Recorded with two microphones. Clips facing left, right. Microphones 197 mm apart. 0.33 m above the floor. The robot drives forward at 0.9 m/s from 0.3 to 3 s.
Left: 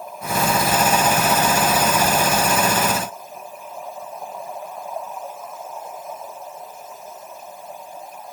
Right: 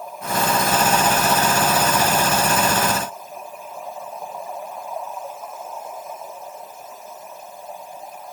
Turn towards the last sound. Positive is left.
No sound to turn to.